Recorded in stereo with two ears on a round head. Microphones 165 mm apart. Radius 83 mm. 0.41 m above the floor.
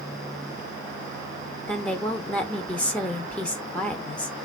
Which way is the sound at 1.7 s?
5° left (ahead or behind).